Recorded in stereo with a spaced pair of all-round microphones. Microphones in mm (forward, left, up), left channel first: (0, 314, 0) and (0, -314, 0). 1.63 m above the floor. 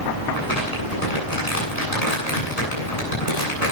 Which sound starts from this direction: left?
Crumpling, at 0.3 s.